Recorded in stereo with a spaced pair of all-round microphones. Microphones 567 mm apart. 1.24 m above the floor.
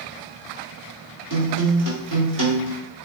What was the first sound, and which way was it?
A guitar, 35° right (ahead or behind).